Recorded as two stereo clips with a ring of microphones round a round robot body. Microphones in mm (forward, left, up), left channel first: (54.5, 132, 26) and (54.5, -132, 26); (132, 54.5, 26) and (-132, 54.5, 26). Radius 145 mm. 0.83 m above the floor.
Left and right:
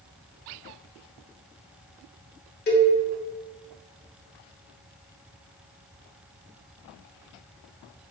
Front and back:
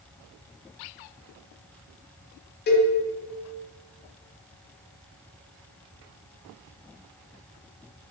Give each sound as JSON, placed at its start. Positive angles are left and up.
{"t": 2.7, "sound": "a cowbell", "azimuth_deg": 45, "distance_m": 0.7}